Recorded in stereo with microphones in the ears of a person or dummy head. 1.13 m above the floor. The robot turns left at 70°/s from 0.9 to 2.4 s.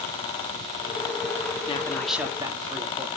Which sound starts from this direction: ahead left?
A man speaking, at 1.7 s.